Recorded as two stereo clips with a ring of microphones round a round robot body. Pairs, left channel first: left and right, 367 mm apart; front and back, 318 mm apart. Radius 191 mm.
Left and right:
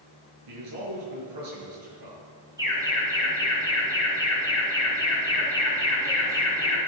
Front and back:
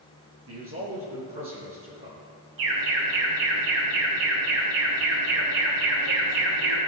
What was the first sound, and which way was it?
A man speaking, 125° right.